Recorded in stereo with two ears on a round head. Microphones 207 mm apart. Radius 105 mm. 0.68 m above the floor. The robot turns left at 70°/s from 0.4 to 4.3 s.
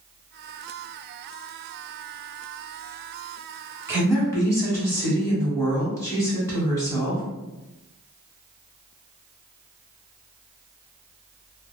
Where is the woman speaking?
15° right (ahead or behind), 1.3 m; by 7.2 s 15° left (ahead or behind), 1.3 m.